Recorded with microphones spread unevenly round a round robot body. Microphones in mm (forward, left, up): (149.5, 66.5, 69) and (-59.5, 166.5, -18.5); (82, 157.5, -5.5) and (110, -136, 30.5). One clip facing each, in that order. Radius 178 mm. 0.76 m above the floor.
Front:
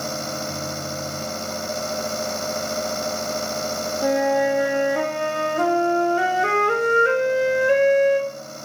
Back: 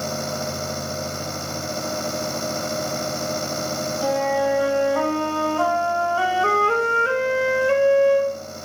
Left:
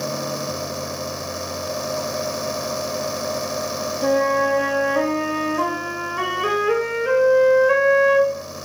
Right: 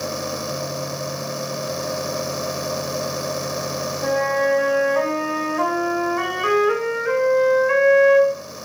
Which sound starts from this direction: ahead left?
A flute, at 4.0 s.